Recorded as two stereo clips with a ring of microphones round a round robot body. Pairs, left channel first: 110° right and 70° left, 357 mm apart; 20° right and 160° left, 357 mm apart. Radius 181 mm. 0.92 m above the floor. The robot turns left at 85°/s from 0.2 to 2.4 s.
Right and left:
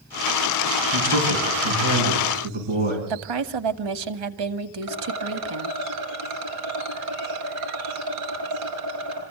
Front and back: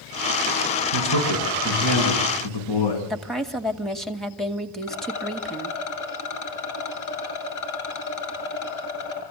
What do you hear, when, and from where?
0.9 s a man speaking: 125° left, 8 m; by 3.0 s straight ahead, 8 m
3.1 s a woman speaking: 65° left, 2 m
4.8 s a rattle: 20° left, 7.5 m